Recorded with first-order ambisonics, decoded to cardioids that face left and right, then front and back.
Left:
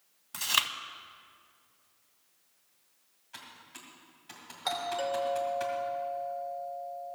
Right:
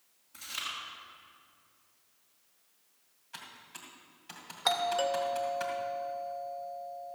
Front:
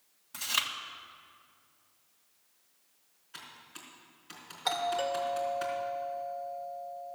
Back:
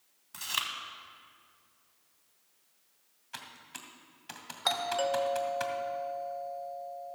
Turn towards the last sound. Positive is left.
turn(degrees=-130)